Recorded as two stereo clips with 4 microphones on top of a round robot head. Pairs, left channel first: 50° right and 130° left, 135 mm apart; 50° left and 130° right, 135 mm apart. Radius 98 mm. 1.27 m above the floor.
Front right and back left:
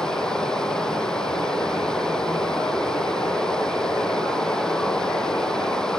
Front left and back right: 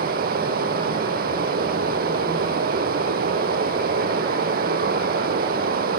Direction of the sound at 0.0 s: 135° right.